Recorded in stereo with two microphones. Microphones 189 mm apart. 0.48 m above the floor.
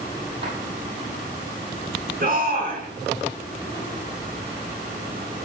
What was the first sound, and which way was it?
A drawer, 90° right.